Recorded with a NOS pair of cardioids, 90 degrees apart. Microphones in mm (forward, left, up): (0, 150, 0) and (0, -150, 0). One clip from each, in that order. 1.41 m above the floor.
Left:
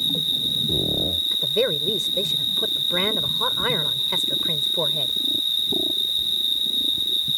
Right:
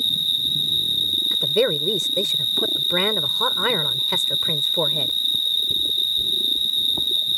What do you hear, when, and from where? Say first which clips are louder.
0.0 s an insect: right 2 dB; 25° right
1.3 s a woman speaking: right 2 dB; 45° right